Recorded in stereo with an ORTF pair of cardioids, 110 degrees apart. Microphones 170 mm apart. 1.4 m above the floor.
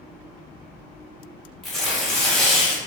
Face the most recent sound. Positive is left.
turn(degrees=0)